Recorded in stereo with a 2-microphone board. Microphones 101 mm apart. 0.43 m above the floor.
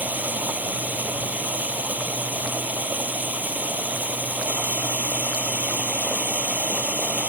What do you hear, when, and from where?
0.0 s running water: 20° right (ahead or behind)